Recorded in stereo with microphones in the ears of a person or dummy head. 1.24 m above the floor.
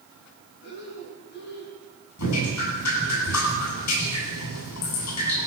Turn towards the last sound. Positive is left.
turn(degrees=85)